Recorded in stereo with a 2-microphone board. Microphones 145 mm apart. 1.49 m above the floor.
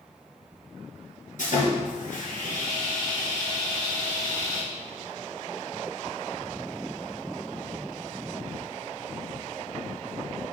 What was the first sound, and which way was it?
Sawing, 70° left (ahead or behind).